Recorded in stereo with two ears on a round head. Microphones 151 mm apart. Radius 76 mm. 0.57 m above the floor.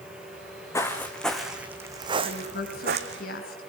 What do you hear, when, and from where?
0.7 s footsteps: 15° left (ahead or behind), 3 m; by 3.2 s 65° right (ahead or behind), 2.5 m
2.2 s a woman speaking: 55° left (ahead or behind), 5.5 m